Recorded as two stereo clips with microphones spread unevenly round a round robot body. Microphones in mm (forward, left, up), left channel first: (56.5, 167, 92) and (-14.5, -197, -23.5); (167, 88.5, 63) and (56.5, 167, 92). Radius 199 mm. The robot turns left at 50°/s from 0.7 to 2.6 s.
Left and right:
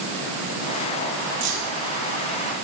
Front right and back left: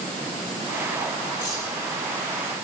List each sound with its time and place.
1.4 s keys jangling: 65° right, 3.5 m; by 1.7 s 80° right, 3.5 m